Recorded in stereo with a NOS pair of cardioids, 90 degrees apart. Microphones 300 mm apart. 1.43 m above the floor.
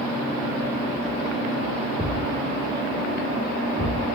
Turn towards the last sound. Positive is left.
turn(degrees=15)